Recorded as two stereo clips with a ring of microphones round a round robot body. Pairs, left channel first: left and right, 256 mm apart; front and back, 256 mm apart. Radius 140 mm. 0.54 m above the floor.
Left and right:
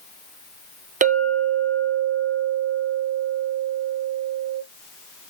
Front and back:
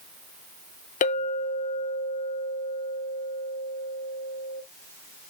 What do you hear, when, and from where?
1.0 s a clink: 45° right, 0.5 m